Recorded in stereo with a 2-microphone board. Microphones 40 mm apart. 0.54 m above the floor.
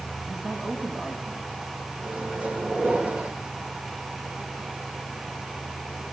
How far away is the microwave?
About 1.9 m.